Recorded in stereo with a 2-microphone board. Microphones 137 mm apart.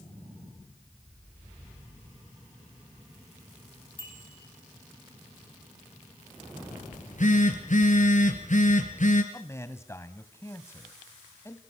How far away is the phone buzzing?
About 3.5 m.